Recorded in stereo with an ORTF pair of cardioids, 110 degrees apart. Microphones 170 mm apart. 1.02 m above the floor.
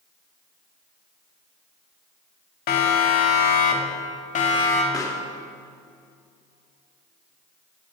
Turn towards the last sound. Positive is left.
turn(degrees=20)